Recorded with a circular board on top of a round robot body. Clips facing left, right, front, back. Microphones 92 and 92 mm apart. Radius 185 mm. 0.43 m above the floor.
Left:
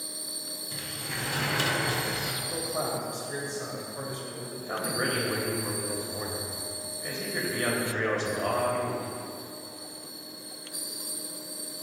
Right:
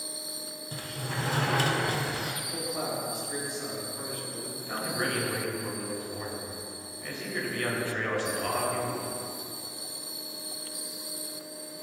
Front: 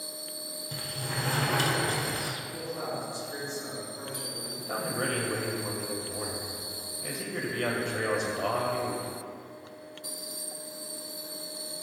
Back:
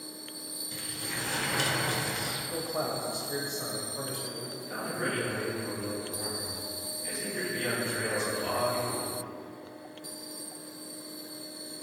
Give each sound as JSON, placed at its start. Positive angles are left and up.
{"t": 0.7, "sound": "a sliding door", "azimuth_deg": -40, "distance_m": 1.1}
{"t": 2.5, "sound": "a man speaking", "azimuth_deg": 150, "distance_m": 2.5}
{"t": 4.6, "sound": "a man speaking", "azimuth_deg": 20, "distance_m": 2.5}